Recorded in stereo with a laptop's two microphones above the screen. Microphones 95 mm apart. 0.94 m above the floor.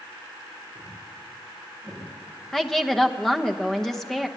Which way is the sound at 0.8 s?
Centre (ahead or behind).